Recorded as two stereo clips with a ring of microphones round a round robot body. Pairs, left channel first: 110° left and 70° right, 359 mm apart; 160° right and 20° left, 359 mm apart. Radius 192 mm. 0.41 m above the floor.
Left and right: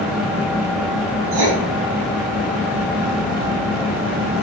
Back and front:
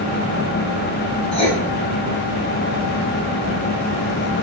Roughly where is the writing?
Right.